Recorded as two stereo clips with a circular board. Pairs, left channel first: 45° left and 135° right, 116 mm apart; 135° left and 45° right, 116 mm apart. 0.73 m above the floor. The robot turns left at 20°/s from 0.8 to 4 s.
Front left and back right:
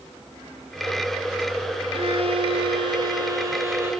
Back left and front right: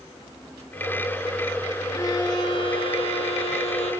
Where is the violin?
165° right, 6 m; by 3.9 s 155° left, 6 m.